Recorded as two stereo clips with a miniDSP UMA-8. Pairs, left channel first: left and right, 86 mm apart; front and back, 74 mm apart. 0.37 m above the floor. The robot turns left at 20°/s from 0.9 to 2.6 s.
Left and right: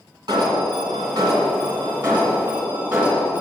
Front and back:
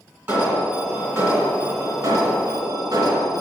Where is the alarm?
125° right, 2 m; by 3.4 s 160° right, 2 m.